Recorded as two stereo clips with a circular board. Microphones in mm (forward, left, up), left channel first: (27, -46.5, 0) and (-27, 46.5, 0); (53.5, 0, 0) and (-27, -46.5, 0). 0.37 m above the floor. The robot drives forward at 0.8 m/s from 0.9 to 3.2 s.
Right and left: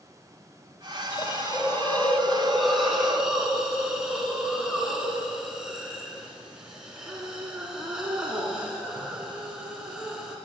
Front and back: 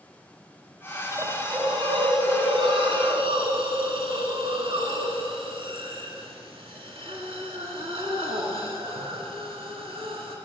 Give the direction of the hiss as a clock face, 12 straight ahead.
3 o'clock.